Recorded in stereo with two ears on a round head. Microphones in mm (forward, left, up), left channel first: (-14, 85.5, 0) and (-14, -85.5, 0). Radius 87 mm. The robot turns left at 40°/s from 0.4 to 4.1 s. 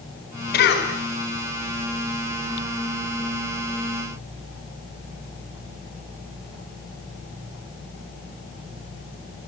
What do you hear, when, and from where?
0.5 s a cough: 60° left (ahead or behind), 4.5 m; by 0.9 s 70° left (ahead or behind), 4.5 m